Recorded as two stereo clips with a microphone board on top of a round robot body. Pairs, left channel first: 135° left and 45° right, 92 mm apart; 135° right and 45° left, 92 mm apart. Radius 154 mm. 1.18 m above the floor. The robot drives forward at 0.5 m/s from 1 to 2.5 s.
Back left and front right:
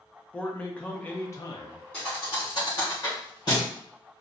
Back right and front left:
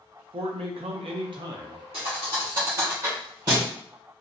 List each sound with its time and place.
0.3 s a man speaking: 60° left, 0.6 m; by 1.8 s 105° left, 0.5 m
1.9 s a thud: 55° left, 0.7 m; by 3.7 s 85° left, 0.6 m